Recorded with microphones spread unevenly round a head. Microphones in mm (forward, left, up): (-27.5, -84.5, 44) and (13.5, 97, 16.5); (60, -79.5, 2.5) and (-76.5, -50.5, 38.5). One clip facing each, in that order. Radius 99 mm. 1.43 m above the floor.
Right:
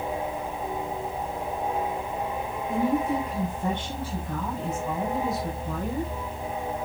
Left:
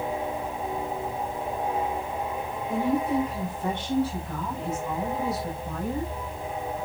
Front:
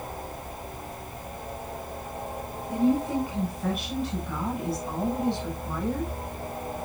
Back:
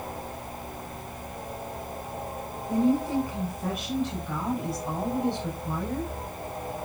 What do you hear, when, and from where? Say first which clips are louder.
2.7 s a woman speaking: even, even; 145° right, 7.5 m; by 6.1 s 155° right, 8.5 m